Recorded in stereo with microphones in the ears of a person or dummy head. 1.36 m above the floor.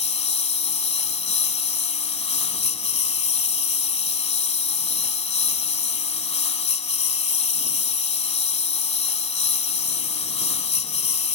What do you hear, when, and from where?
0.0 s a lawn mower: 30° left (ahead or behind)